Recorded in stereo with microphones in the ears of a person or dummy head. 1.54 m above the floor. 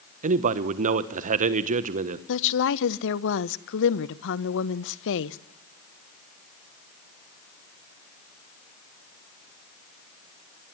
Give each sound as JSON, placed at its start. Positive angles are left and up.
{"t": 0.2, "sound": "a man speaking", "side_deg": -45, "distance_m": 1.2}
{"t": 2.3, "sound": "a woman speaking", "side_deg": 70, "distance_m": 1.1}